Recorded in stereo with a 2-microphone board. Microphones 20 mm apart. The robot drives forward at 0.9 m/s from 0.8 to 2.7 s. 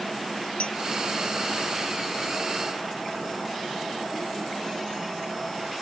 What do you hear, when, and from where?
0.6 s a clink: 75° left (ahead or behind)